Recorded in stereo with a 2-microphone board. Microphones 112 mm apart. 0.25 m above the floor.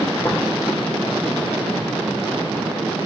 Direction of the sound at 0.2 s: 15° left (ahead or behind).